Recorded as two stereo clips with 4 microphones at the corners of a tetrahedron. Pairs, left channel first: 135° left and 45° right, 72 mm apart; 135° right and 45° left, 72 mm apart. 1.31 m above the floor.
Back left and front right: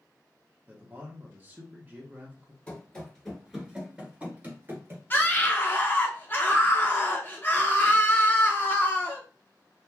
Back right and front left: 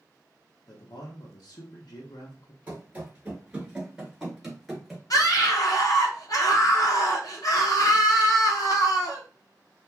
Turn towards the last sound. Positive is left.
turn(degrees=-165)